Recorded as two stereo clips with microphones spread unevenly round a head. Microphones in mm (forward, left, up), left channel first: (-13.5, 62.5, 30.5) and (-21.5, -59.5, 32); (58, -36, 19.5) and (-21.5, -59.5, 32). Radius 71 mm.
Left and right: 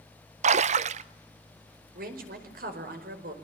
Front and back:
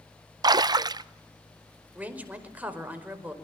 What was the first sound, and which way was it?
A splash, 125° right.